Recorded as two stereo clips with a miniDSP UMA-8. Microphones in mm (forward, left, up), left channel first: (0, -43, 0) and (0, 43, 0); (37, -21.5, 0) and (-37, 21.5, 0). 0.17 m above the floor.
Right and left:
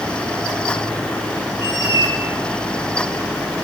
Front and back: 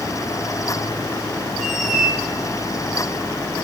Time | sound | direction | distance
1.6 | a squeak | 120° right | 4 m